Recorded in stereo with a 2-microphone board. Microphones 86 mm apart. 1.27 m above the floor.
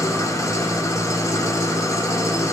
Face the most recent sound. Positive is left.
turn(degrees=40)  # may be behind; listen again after turning